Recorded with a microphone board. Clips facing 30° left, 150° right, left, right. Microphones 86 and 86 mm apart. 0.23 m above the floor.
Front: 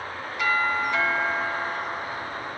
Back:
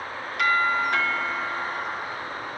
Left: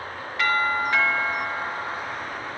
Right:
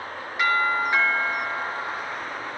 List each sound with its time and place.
0.4 s a doorbell: 165° right, 5.5 m